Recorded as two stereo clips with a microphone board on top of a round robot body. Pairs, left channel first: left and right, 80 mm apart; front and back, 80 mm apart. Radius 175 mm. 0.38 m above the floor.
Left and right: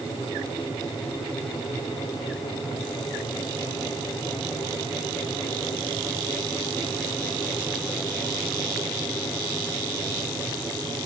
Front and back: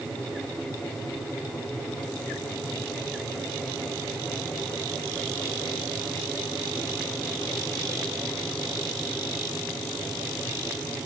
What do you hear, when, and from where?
Only background noise.